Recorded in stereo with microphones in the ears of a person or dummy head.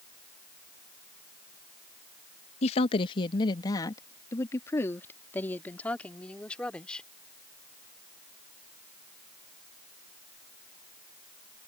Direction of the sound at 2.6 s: 35° left (ahead or behind).